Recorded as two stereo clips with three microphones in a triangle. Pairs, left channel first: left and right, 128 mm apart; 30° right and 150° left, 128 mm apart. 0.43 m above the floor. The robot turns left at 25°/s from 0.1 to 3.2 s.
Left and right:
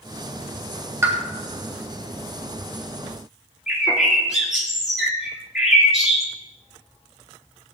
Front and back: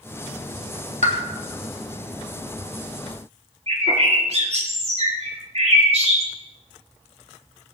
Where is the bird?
175° right, 3 m.